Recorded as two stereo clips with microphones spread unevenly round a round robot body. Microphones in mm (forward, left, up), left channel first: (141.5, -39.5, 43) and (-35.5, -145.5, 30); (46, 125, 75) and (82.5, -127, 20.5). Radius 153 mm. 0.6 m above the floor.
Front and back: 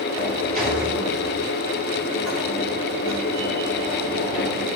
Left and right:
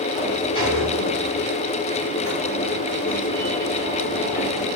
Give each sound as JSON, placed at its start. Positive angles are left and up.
{"t": 0.1, "sound": "a sliding door", "azimuth_deg": 155, "distance_m": 4.5}